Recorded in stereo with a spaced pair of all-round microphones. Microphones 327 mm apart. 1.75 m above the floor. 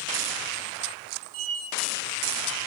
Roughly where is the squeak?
Centre.